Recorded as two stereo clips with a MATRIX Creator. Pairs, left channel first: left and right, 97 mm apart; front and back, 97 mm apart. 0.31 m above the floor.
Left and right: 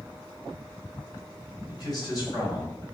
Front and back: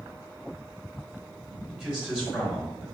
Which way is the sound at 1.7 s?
95° left.